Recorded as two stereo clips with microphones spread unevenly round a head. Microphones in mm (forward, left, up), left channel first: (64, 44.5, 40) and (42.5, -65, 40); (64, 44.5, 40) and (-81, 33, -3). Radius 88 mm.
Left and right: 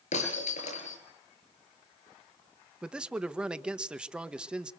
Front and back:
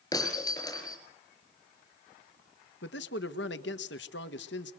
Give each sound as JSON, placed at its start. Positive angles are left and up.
{"t": 0.1, "sound": "breaking glass", "azimuth_deg": 70, "distance_m": 8.0}
{"t": 2.8, "sound": "a man speaking", "azimuth_deg": -20, "distance_m": 1.5}